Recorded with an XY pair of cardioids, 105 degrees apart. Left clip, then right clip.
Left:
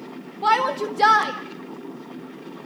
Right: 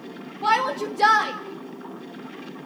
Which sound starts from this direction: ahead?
A shout, at 0.4 s.